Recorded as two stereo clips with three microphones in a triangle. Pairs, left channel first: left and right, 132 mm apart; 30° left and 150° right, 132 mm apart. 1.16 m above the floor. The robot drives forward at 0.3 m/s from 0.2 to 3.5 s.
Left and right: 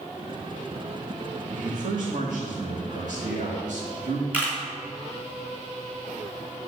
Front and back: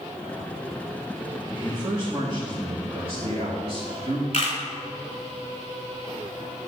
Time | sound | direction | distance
1.5 | a man speaking | 85° right | 1.7 m
4.3 | a camera shutter | 15° right | 3 m